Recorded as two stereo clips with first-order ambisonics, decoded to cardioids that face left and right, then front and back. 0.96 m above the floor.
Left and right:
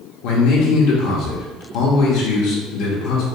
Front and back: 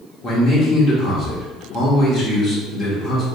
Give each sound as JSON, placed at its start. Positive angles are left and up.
{"t": 0.2, "sound": "a man speaking", "azimuth_deg": 70, "distance_m": 1.6}